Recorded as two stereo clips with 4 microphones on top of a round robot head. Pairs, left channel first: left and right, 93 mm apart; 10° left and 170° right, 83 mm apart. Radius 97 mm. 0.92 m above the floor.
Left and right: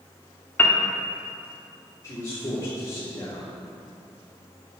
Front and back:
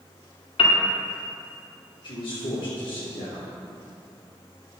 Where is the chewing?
No chewing in this recording.